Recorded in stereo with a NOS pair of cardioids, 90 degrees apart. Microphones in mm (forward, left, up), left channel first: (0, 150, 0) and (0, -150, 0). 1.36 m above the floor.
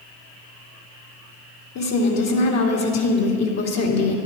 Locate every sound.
1.8 s a woman speaking: 60° left, 2.5 m